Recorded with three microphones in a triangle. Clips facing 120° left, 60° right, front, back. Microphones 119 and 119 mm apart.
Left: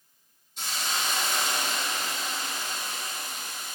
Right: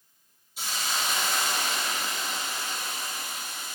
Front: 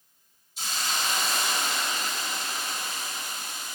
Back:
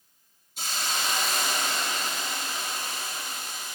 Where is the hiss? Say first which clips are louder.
Even, even; 140° right, 2.5 m.